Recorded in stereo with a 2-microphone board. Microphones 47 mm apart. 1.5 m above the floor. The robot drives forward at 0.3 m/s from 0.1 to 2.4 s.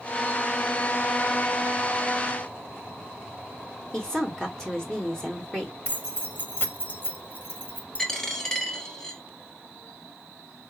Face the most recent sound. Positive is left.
turn(degrees=10)  # may be behind; listen again after turning